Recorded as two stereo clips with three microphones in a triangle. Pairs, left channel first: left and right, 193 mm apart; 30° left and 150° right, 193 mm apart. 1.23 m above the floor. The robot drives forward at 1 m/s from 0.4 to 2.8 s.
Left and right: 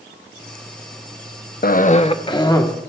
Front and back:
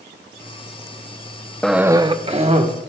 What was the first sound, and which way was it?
A cough, 115° left.